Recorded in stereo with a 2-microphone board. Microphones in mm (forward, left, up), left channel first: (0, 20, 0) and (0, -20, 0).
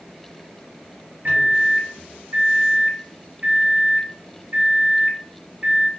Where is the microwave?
50° right (ahead or behind), 0.8 m.